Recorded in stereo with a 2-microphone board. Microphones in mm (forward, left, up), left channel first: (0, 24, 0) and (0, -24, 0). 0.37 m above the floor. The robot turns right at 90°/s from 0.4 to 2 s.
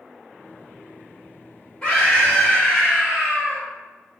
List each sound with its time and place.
1.8 s a scream: 15° left (ahead or behind), 1.2 m; by 3.7 s 10° left (ahead or behind), 1.2 m